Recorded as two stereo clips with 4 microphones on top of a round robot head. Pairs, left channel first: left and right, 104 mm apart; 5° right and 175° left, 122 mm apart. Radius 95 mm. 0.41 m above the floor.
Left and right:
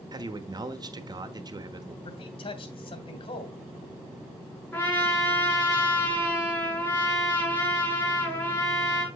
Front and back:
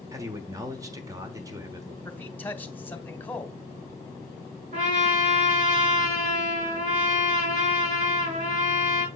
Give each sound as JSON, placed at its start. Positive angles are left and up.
{"t": 0.1, "sound": "a man speaking", "azimuth_deg": -125, "distance_m": 1.3}
{"t": 2.0, "sound": "a man speaking", "azimuth_deg": 70, "distance_m": 1.7}
{"t": 4.7, "sound": "a trumpet", "azimuth_deg": 160, "distance_m": 5.0}